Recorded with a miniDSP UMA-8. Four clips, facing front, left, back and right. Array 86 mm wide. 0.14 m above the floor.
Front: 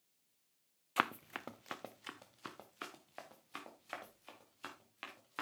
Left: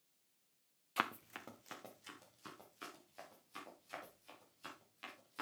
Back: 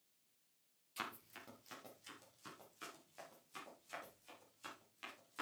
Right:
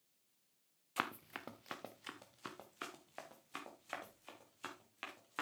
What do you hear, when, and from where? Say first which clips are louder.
1.0 s running footsteps: left 2 dB, front 12 dB; 5° left, 0.8 m; by 5.4 s 45° right, 5.5 m